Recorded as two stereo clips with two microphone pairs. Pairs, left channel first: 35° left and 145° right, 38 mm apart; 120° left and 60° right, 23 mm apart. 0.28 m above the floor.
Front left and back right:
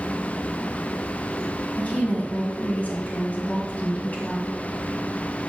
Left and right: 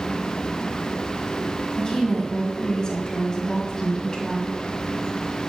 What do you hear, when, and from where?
1.8 s a woman speaking: 70° left, 2 m